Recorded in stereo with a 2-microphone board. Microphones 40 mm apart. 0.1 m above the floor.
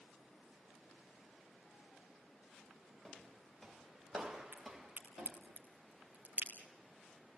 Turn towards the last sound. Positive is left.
turn(degrees=-35)  # may be behind; listen again after turning